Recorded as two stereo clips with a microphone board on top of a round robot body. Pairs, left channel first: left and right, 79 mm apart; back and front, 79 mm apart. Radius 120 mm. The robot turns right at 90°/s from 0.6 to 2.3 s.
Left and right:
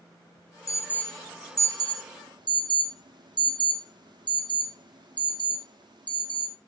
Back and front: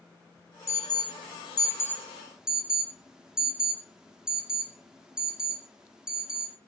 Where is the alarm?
130° left, 2.5 m; by 6.6 s 80° right, 2.5 m.